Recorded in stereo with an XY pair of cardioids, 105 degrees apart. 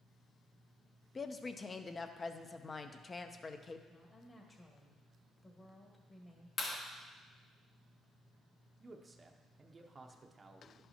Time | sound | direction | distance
1.1 | a woman speaking | 30° left | 0.6 m
3.9 | a woman speaking | 25° left | 1.6 m
6.6 | a clap | 45° left | 1.4 m
8.8 | a man speaking | 25° right | 0.6 m